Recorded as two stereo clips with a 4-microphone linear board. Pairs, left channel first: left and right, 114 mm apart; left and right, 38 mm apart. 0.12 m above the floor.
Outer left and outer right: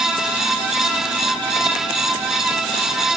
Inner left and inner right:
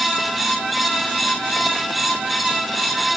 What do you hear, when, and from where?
Only background noise.